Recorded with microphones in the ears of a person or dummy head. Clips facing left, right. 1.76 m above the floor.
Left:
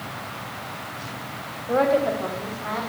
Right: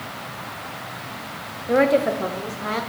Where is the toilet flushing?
I don't hear a toilet flushing.